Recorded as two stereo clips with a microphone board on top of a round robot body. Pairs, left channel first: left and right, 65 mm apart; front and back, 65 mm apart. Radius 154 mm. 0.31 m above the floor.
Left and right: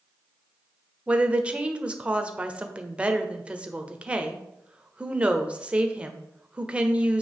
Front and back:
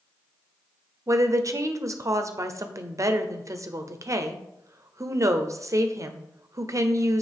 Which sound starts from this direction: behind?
A woman speaking, at 1.1 s.